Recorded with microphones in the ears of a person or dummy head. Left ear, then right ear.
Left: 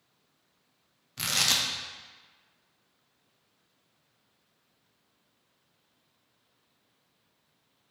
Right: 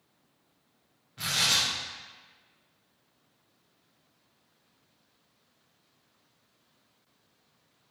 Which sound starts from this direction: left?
Tearing paper, at 1.2 s.